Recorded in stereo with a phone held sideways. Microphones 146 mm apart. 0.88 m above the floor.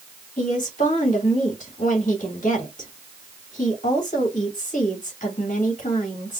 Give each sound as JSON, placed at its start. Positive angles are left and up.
{"t": 0.4, "sound": "a woman speaking", "side_deg": 60, "distance_m": 2.0}